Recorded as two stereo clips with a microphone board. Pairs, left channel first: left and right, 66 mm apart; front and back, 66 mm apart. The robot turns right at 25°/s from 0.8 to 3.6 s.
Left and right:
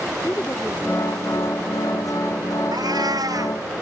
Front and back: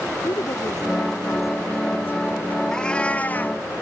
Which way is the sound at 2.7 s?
80° right.